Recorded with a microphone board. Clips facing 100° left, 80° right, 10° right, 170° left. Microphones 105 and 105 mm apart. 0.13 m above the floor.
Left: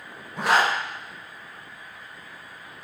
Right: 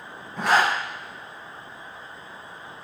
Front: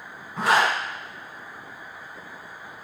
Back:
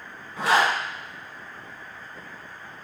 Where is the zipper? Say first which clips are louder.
Right 1 dB, even; 20° left, 1.8 m.